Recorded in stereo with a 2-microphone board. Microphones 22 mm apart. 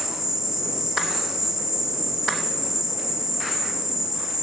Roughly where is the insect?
Right.